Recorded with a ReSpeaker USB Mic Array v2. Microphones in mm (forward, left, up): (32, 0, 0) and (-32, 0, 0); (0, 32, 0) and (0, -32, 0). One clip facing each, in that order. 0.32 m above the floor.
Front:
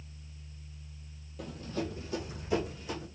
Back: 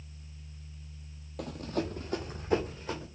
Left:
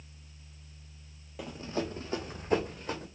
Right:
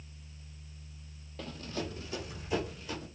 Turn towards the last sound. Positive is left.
turn(degrees=125)